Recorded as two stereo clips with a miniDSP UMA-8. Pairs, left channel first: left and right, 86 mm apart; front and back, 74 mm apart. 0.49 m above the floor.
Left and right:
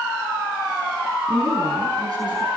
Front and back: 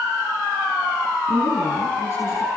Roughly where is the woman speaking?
Ahead right.